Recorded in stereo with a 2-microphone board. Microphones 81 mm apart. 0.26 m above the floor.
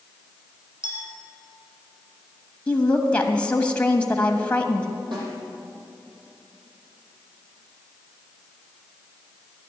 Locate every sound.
0.8 s a clink: 80° right, 3.5 m
2.7 s a woman speaking: 15° left (ahead or behind), 1.2 m
5.1 s a snare drum: 85° right, 5.5 m